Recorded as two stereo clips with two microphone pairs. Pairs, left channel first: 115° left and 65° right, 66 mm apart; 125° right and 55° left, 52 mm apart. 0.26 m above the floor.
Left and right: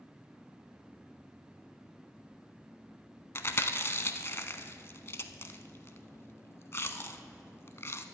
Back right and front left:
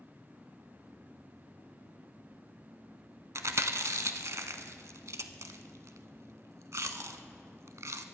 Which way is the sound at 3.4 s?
70° left.